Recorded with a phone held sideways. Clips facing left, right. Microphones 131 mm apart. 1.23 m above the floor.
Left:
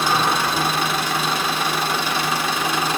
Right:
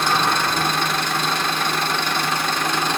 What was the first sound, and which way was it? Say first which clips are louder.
An engine running: left 1 dB; 5° left (ahead or behind).